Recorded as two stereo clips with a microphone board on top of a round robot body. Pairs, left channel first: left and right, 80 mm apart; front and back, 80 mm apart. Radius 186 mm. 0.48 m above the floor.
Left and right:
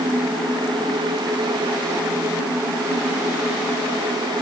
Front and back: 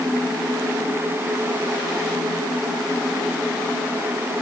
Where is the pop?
No pop in this recording.